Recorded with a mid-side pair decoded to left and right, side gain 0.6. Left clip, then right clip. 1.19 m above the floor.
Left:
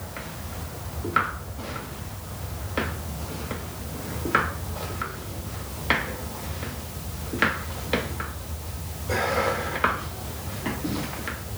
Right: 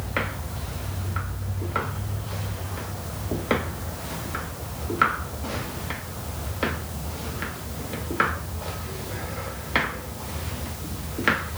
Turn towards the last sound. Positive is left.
No sound to turn to.